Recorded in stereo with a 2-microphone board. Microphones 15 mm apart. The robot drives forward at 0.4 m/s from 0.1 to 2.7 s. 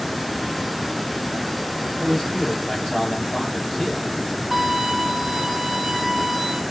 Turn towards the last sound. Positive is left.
turn(degrees=-35)  # may be behind; listen again after turning